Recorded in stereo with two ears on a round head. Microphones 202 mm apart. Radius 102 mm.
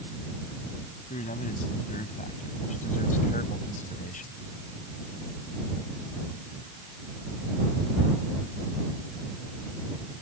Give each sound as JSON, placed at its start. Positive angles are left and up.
{"t": 1.1, "sound": "a man speaking", "side_deg": 35}